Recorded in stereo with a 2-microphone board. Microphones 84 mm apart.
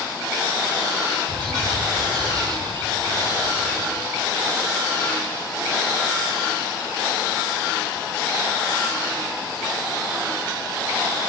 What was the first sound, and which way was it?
A bird, 60° right (ahead or behind).